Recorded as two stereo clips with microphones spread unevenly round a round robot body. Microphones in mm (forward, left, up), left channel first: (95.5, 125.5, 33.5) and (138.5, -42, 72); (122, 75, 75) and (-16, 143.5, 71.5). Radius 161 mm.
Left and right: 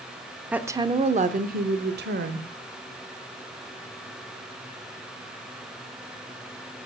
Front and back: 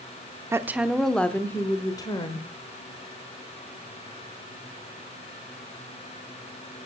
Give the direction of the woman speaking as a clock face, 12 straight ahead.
6 o'clock.